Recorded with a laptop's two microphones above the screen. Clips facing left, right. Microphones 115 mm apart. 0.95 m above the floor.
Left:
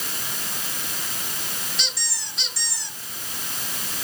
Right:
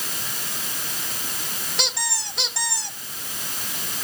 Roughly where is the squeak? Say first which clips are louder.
Right 7 dB; right.